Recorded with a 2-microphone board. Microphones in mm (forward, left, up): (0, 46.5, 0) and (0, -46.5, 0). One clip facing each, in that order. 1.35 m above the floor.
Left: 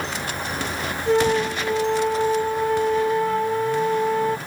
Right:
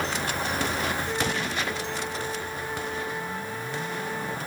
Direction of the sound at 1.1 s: 80° left.